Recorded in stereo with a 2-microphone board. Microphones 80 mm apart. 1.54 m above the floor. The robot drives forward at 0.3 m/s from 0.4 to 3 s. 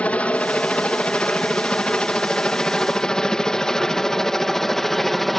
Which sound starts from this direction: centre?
A helicopter, at 0.0 s.